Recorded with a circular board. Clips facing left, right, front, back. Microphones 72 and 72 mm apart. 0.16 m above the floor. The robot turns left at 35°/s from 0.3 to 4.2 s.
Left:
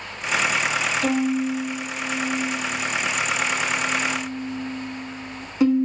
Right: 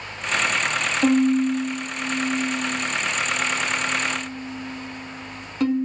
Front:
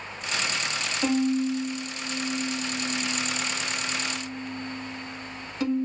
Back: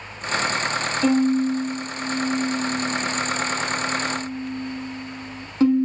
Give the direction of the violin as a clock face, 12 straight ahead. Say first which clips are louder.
Right 6 dB, back 5 dB; 3 o'clock.